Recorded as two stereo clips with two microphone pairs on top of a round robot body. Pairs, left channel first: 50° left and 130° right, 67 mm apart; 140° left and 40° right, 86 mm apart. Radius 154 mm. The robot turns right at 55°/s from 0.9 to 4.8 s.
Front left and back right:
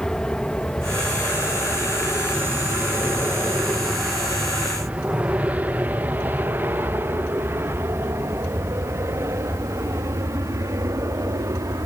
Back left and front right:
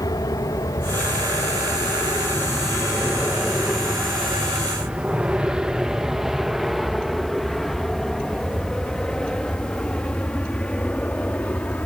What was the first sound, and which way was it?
An aircraft, 130° left.